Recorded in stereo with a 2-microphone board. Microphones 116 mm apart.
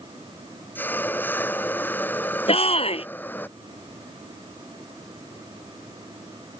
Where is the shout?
55° left (ahead or behind).